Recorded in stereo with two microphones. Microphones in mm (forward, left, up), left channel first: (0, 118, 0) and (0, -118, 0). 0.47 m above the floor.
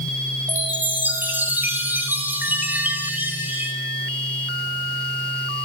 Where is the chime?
5° right (ahead or behind), 2.5 m.